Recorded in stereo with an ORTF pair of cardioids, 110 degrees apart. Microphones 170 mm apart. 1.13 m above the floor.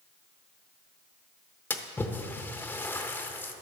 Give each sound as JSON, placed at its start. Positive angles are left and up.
{"t": 1.7, "sound": "a splash", "azimuth_deg": 10, "distance_m": 0.7}